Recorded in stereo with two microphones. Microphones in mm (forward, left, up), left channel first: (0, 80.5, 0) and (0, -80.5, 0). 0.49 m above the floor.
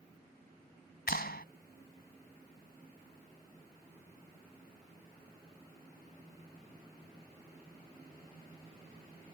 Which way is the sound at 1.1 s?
80° left.